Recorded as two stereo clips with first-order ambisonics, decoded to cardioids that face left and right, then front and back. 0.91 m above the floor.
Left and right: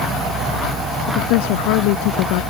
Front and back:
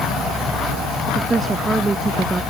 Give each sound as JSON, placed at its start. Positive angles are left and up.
{"t": 1.1, "sound": "a woman speaking", "azimuth_deg": 100}